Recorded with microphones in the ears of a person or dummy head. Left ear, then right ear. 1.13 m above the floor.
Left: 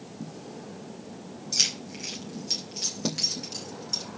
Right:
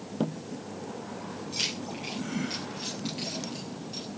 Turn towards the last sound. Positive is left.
turn(degrees=50)  # may be behind; listen again after turning